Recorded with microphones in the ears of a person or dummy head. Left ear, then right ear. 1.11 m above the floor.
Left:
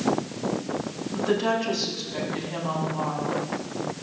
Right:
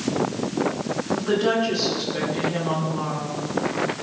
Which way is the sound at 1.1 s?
90° left.